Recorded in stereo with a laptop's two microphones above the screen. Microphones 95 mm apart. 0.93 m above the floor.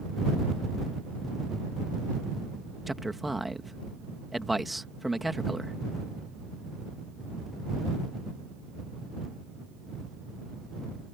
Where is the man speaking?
Centre (ahead or behind).